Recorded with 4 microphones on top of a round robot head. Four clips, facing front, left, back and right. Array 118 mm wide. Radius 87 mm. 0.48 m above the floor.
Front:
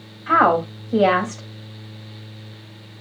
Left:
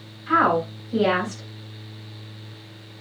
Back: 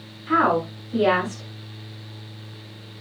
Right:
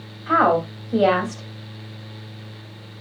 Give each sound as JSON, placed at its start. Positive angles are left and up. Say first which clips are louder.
{"t": 0.3, "sound": "a woman speaking", "louder": "right 2 dB, front 4 dB", "azimuth_deg": -35, "distance_m": 3.0}